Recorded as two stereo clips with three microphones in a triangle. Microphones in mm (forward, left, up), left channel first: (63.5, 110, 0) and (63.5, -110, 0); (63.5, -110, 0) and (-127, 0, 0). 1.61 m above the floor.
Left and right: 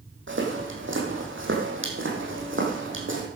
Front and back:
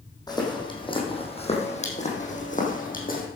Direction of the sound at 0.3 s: 100° right.